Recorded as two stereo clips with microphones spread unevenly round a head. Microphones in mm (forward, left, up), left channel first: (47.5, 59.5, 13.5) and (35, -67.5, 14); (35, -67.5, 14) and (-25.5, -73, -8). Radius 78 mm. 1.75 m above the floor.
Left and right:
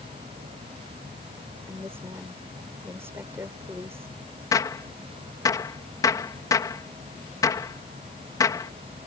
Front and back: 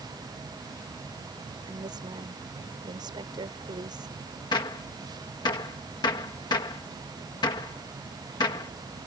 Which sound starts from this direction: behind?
A woman speaking, at 1.7 s.